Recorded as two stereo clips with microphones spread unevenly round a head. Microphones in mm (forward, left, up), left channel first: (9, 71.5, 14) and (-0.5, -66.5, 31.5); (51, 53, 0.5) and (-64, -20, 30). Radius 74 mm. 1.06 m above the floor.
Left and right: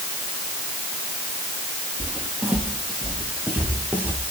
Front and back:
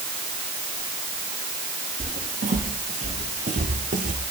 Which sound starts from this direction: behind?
Footsteps, at 2.0 s.